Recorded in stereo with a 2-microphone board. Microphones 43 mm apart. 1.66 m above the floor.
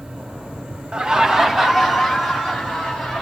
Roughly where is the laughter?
Right.